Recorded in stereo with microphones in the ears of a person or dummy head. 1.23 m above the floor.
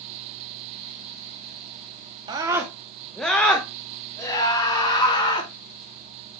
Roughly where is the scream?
Right.